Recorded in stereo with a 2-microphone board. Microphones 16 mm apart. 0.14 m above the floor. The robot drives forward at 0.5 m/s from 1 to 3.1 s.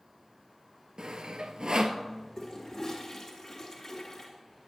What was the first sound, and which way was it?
Sawing, 65° right (ahead or behind).